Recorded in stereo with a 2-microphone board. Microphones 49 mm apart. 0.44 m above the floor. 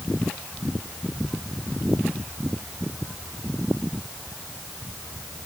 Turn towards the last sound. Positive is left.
No sound to turn to.